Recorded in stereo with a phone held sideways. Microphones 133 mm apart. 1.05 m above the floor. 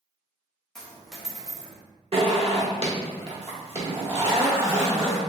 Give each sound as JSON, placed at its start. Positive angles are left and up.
{"t": 0.8, "sound": "a dropped coin", "side_deg": 5, "distance_m": 0.6}
{"t": 2.1, "sound": "a zipper", "side_deg": -45, "distance_m": 0.8}